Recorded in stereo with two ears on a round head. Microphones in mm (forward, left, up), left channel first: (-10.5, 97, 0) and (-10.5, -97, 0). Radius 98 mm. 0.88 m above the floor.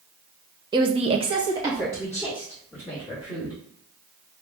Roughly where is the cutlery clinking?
No cutlery clinking in this recording.